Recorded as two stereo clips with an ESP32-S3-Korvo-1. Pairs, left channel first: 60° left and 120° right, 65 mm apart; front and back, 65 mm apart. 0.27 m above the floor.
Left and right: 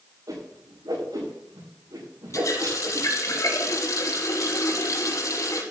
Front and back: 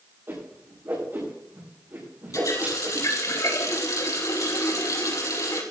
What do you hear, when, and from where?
0.3 s a whoosh: 130° right, 7.5 m
2.3 s a running tap: 30° left, 5 m